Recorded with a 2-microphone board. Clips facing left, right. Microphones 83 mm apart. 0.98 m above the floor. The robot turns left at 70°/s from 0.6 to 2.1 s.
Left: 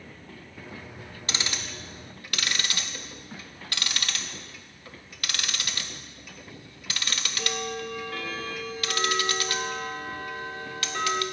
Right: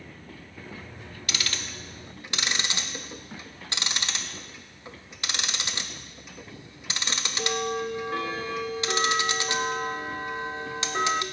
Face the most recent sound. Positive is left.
turn(degrees=-25)  # may be behind; listen again after turning